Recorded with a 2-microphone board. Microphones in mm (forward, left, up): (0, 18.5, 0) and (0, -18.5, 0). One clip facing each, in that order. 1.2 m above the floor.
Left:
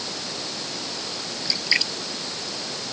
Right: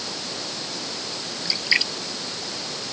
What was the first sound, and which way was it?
A splash, 5° right (ahead or behind).